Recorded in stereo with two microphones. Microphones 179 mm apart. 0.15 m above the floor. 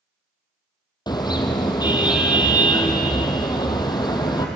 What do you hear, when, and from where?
1.1 s a car horn: 25° left (ahead or behind), 2.5 m